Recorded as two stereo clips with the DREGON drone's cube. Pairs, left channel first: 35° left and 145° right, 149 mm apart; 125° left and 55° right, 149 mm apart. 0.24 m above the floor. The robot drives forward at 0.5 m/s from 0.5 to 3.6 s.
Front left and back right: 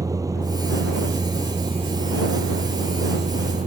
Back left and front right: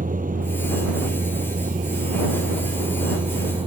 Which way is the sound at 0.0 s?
80° right.